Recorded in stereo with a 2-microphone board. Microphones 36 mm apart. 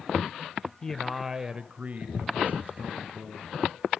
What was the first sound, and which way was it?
A man speaking, 15° left (ahead or behind).